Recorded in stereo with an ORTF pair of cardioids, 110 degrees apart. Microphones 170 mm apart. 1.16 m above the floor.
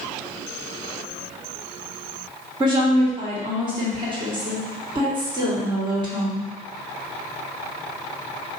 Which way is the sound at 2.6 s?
30° right.